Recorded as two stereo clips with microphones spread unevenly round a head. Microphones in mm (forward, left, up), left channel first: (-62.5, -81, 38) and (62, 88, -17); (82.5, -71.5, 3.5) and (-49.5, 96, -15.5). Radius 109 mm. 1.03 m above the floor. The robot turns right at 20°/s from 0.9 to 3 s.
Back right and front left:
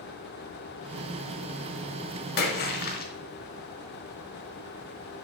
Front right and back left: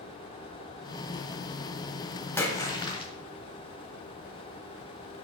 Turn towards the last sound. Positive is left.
turn(degrees=-110)